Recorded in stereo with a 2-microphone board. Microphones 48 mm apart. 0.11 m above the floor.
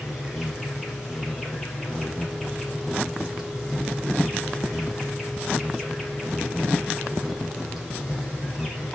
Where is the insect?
Centre (ahead or behind), 4.5 m.